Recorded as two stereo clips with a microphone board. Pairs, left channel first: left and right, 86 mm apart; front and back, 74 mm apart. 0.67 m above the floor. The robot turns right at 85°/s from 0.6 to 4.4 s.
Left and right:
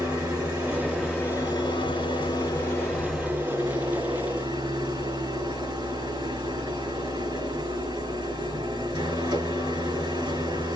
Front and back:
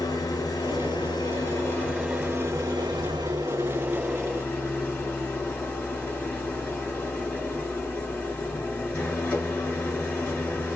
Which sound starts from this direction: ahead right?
An engine running, at 0.0 s.